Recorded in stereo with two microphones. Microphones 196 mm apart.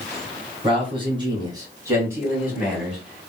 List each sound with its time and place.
0.6 s a man speaking: 30° right (ahead or behind), 1.9 m; by 3.3 s centre (ahead or behind), 1.9 m